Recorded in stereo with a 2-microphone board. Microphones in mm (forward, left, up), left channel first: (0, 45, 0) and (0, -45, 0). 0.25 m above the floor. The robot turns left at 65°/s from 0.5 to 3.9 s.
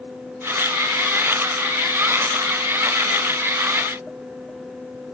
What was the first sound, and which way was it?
Only background noise.